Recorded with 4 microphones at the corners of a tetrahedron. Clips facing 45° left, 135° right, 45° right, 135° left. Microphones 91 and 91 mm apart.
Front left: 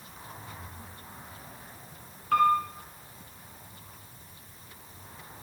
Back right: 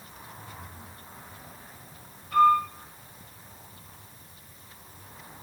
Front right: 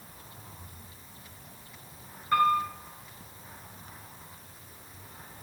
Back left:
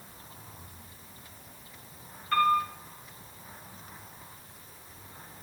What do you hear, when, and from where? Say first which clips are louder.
2.3 s a piano: back right 3 dB, even; 30° left, 5.5 m